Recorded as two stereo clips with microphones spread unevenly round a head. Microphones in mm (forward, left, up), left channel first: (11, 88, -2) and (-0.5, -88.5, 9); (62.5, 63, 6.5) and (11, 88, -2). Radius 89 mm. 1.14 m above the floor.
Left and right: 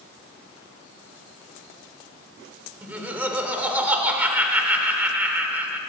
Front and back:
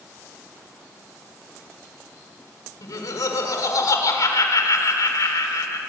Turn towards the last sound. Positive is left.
turn(degrees=-15)